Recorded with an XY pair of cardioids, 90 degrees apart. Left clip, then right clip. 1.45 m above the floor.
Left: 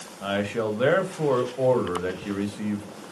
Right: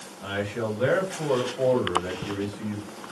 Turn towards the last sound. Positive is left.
turn(degrees=60)